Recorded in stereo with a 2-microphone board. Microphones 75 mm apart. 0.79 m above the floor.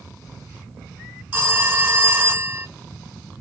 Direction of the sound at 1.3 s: 20° right (ahead or behind).